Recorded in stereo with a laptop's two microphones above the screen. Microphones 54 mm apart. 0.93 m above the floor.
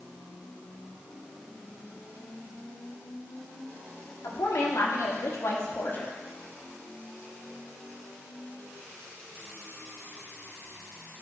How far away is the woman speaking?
About 1.7 m.